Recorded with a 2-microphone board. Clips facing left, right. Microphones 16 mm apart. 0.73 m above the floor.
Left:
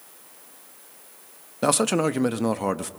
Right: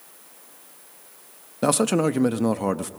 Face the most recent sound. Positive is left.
turn(degrees=10)  # may be behind; listen again after turning